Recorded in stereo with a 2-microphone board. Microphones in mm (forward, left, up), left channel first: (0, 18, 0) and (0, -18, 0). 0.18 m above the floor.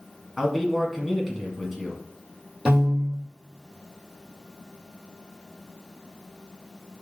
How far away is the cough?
I don't hear a cough.